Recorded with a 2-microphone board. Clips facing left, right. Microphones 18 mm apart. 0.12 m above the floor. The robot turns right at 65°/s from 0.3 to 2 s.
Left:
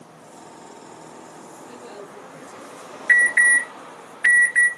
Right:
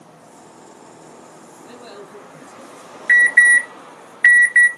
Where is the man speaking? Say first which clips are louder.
Right 2 dB; 45° right (ahead or behind), 3.5 m; by 2.8 s 60° right (ahead or behind), 3.5 m.